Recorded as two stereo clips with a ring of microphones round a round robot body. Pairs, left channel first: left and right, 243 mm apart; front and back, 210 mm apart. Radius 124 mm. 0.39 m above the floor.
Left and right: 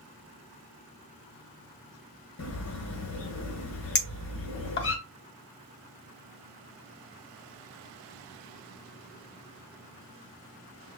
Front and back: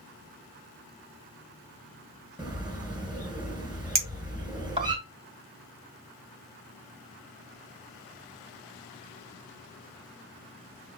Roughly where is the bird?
Behind left.